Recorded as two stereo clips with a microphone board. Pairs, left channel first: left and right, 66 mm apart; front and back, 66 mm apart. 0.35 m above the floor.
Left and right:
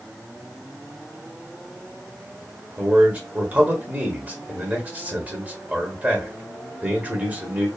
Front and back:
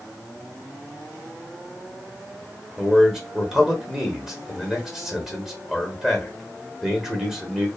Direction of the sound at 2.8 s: 115° right.